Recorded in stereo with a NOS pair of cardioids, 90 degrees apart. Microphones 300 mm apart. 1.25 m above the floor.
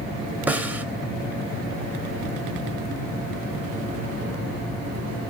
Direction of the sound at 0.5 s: 5° right.